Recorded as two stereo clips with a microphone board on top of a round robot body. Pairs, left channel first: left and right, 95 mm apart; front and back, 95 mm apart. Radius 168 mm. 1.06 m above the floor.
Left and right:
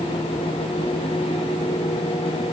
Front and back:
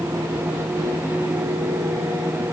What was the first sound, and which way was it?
Only background noise.